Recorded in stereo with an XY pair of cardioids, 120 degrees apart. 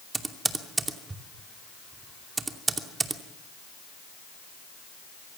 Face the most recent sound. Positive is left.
turn(degrees=-20)